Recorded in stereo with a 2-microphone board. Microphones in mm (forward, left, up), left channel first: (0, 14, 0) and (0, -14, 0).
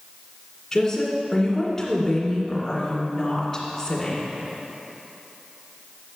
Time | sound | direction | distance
0.7 | a woman speaking | 15° left (ahead or behind) | 1.9 m